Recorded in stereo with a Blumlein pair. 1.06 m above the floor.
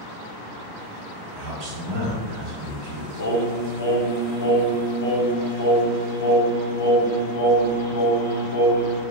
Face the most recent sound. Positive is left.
turn(degrees=70)